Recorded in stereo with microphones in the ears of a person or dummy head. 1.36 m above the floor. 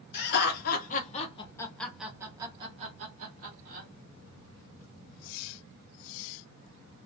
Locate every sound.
0.1 s laughter: 65° left (ahead or behind), 1.2 m; by 3.9 s 55° right (ahead or behind), 1.4 m